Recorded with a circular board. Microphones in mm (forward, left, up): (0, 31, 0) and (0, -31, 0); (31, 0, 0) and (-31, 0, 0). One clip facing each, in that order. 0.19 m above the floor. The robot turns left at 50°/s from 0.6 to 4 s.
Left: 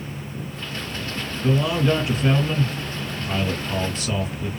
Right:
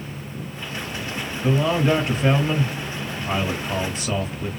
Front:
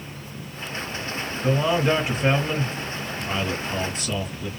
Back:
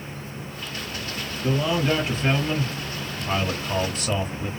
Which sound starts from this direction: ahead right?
A man speaking, at 1.4 s.